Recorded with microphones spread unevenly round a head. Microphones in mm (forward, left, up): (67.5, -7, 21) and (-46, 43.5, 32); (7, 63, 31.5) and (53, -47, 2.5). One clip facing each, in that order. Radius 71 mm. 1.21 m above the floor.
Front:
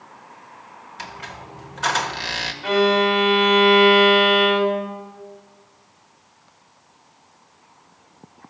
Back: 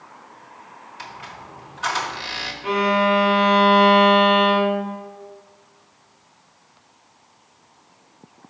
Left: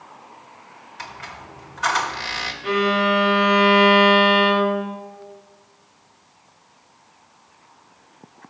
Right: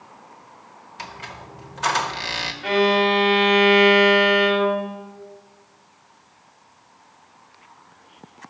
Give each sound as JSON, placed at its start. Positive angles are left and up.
{"t": 1.0, "sound": "a squeak", "azimuth_deg": -5, "distance_m": 1.2}
{"t": 2.6, "sound": "a violin", "azimuth_deg": -55, "distance_m": 2.5}